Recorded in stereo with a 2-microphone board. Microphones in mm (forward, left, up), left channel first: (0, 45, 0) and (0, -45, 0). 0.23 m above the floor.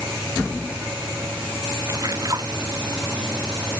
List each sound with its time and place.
1.9 s a splash: 40° right (ahead or behind)